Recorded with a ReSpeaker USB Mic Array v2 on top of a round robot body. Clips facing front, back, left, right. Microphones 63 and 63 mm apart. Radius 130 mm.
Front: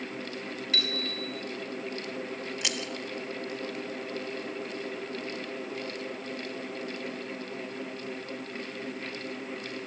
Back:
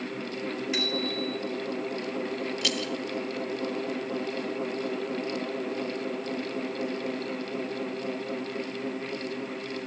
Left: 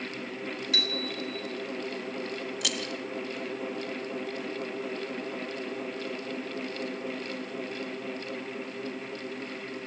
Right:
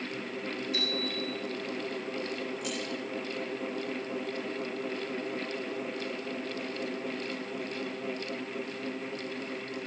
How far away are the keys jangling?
About 1.1 m.